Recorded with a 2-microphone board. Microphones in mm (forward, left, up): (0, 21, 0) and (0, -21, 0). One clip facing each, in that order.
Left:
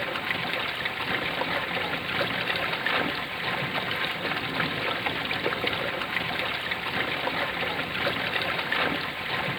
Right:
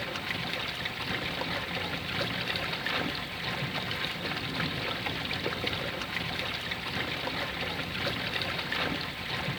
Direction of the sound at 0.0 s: 25° left (ahead or behind).